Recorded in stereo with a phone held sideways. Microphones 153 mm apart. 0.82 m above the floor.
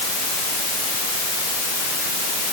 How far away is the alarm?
I don't hear an alarm.